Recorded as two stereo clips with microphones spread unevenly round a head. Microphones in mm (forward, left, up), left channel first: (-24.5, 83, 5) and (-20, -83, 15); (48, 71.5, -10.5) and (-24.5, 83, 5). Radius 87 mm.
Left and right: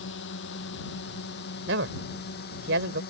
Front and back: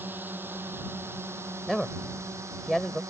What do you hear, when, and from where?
0.0 s a drone: 110° left; by 3.1 s 125° left
1.7 s a man speaking: 100° right